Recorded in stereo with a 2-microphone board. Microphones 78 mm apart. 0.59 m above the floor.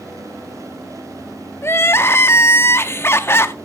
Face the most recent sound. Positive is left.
turn(degrees=30)  # may be behind; listen again after turning